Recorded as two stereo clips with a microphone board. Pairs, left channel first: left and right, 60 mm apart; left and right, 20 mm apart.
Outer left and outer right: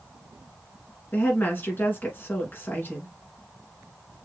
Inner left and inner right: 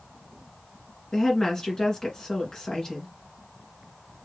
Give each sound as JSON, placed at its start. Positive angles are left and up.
{"t": 1.1, "sound": "a woman speaking", "side_deg": 35, "distance_m": 1.4}